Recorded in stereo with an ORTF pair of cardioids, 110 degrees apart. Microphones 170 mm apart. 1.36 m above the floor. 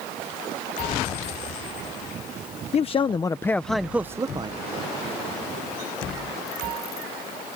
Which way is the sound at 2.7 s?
40° left.